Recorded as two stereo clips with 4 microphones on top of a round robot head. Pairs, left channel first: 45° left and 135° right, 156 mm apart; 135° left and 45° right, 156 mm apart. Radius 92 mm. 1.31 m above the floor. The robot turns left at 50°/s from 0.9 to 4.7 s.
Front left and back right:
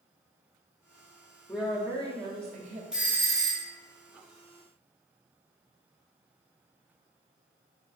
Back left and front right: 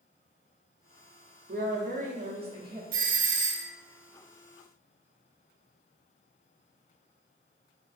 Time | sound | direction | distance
1.5 | a woman speaking | 45° right | 0.7 m
2.9 | a doorbell | 50° right | 0.5 m